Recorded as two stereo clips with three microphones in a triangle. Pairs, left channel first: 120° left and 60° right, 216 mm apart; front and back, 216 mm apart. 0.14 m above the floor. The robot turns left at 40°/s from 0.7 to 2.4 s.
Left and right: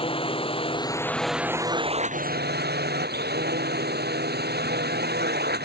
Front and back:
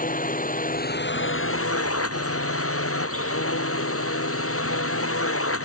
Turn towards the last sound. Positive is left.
turn(degrees=-15)